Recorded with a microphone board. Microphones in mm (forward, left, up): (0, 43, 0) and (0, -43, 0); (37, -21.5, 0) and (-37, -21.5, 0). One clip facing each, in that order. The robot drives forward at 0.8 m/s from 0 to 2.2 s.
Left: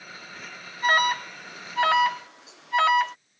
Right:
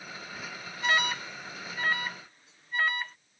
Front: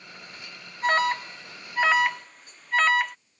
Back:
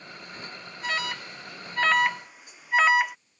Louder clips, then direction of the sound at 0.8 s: Left 6 dB, front 8 dB; 40° left.